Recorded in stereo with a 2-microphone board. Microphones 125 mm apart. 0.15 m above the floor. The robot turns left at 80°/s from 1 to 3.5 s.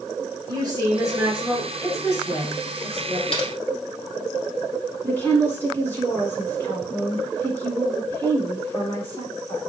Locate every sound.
0.5 s a woman speaking: 135° right, 2 m; by 3.2 s 50° left, 2 m
3.3 s typing on a keyboard: 50° left (ahead or behind), 0.8 m
5.0 s a woman speaking: 20° left (ahead or behind), 1.3 m